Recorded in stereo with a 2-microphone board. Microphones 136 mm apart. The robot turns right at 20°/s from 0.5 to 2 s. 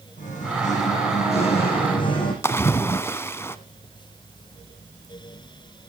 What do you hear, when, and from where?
0.2 s singing: 110° left, 7 m; by 2.3 s 140° left, 7 m
2.4 s a splash: 20° left (ahead or behind), 0.7 m